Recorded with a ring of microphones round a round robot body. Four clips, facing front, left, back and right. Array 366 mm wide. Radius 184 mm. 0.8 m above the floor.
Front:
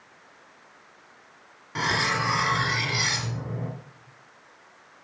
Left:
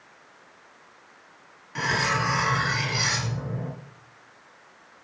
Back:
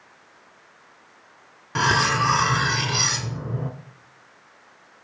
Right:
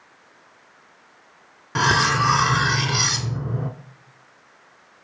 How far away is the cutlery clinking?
About 1.1 m.